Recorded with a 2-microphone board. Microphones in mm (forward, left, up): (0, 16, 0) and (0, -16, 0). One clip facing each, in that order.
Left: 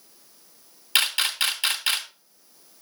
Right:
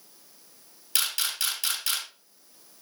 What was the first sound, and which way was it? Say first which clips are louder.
A camera shutter: left 7 dB; 35° left (ahead or behind).